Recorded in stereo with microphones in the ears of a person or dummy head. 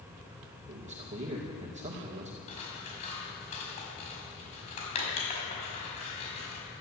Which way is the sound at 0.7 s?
35° right (ahead or behind).